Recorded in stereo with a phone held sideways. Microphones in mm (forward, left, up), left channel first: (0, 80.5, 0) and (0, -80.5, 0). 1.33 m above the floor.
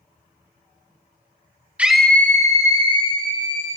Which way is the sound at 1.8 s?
10° right (ahead or behind).